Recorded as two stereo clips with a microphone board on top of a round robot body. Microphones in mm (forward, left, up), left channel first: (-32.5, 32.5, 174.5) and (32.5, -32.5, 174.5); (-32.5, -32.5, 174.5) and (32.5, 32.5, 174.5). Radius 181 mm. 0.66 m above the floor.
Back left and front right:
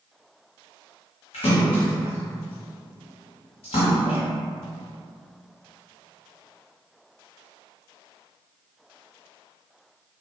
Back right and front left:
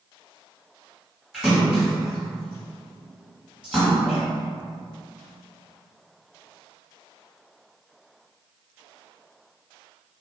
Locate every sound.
1.3 s a splash: 130° left, 1.5 m